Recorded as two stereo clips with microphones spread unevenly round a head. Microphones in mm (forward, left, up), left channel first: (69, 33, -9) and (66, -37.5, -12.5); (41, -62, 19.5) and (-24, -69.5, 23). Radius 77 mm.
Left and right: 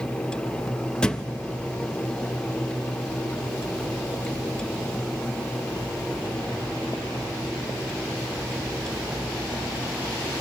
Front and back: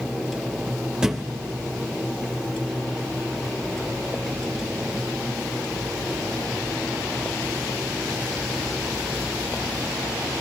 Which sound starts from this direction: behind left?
A thud, at 1.0 s.